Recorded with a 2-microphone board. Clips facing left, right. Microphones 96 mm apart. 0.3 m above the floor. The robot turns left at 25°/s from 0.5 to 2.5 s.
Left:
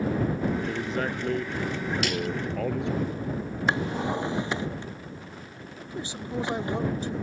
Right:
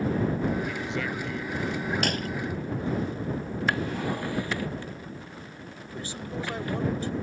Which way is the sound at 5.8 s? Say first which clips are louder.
Left 2 dB; 20° left (ahead or behind).